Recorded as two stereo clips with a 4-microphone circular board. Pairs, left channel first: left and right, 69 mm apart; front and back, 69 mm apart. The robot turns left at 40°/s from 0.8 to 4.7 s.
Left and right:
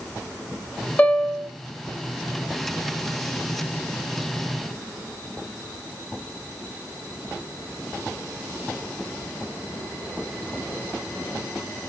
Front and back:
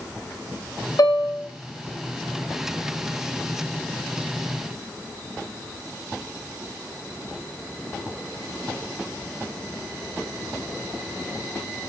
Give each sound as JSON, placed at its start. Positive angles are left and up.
{"t": 1.0, "sound": "a piano", "azimuth_deg": 25, "distance_m": 3.0}